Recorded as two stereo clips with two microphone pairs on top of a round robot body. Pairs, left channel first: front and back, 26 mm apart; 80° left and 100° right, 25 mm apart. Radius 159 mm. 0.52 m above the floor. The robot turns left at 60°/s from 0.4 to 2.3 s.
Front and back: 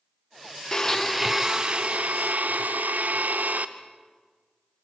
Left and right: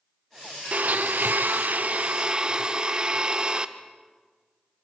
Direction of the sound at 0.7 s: 65° right.